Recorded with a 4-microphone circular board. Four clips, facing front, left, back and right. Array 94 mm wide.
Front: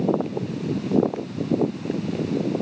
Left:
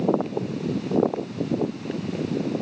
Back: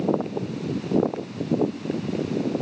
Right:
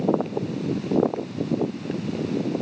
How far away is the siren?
No siren in this recording.